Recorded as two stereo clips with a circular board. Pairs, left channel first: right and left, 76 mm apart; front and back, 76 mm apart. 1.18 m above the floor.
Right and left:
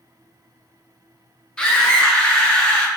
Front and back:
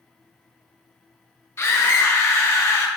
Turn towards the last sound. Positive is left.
turn(degrees=-20)